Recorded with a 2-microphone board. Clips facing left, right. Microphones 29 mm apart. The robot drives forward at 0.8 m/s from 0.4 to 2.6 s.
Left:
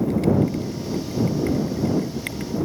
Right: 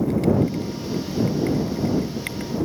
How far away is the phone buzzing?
No phone buzzing in this recording.